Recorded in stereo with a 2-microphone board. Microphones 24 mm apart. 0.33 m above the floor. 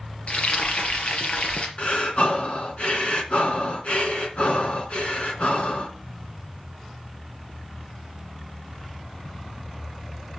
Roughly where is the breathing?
Left.